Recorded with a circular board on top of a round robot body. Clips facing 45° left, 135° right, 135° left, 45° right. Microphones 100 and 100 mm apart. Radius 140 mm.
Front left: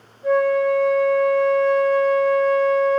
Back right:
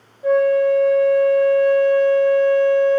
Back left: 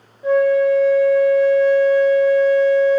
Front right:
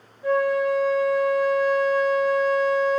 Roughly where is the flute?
Behind.